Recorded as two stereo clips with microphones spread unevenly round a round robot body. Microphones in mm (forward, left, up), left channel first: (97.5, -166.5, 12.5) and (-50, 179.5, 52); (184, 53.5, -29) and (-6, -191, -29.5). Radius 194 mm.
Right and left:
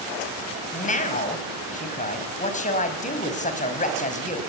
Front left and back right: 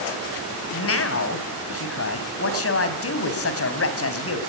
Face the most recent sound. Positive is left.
turn(degrees=5)